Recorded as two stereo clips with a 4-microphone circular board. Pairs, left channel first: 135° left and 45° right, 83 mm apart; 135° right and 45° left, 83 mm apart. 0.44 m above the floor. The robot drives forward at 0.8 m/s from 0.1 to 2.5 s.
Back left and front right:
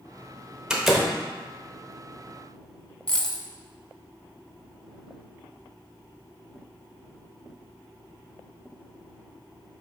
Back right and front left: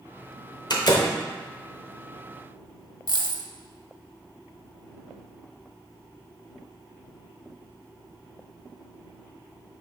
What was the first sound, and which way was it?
A door slam, 125° right.